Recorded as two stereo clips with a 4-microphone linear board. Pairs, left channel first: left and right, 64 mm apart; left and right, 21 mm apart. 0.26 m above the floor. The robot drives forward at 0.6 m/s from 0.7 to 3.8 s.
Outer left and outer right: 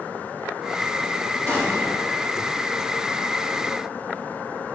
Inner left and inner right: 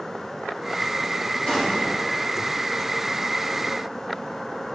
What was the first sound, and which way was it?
An explosion, 30° left (ahead or behind).